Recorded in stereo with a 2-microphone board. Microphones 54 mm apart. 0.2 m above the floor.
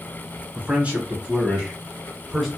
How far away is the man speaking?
About 1.3 m.